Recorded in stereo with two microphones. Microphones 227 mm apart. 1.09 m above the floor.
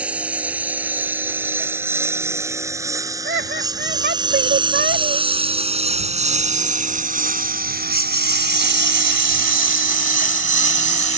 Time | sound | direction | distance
0.0 | a lawn mower | 5° right (ahead or behind) | ?
3.2 | laughter | 50° right (ahead or behind) | ?